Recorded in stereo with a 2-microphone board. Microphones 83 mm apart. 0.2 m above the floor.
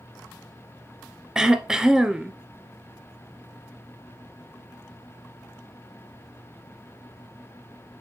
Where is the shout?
I don't hear a shout.